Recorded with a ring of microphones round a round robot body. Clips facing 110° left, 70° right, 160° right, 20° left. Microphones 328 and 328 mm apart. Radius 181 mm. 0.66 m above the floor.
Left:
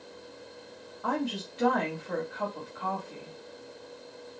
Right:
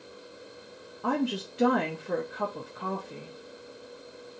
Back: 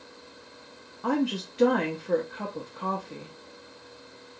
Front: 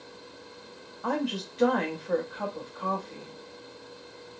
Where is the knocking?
No knocking in this recording.